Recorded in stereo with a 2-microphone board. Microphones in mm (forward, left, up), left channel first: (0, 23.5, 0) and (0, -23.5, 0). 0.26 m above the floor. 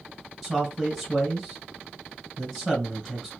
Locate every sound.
0.4 s a man speaking: 5° left (ahead or behind), 1.6 m